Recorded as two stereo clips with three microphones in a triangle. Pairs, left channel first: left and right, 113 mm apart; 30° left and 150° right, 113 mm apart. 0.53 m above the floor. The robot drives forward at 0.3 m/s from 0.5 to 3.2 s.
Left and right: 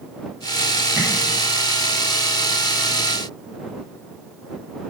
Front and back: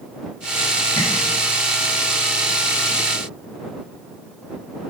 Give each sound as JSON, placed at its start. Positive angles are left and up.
{"t": 1.0, "sound": "tapping", "azimuth_deg": -5, "distance_m": 5.5}